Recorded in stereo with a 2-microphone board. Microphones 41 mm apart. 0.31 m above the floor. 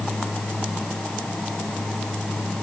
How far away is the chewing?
I don't hear chewing.